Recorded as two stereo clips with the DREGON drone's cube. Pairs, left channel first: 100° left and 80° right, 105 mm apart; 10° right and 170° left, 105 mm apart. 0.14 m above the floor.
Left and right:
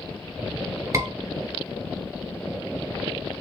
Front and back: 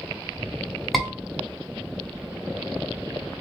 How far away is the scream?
About 1.4 m.